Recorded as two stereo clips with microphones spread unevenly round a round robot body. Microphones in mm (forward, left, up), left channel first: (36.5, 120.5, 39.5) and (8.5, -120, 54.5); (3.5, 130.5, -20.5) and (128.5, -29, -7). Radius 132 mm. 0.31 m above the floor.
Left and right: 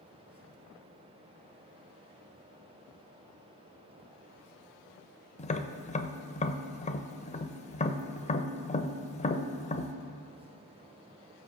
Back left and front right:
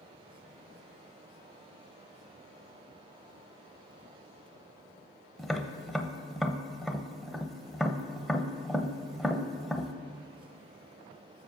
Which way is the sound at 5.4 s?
40° left.